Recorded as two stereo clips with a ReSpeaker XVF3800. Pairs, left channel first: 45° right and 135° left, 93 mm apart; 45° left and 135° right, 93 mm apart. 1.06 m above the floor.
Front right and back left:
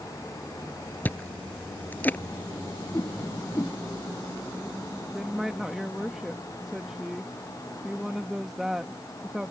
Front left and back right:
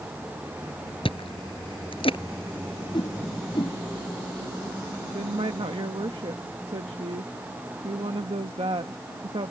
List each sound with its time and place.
1.1 s chewing: 25° left
2.9 s a whoosh: 15° left
5.1 s a woman speaking: 140° right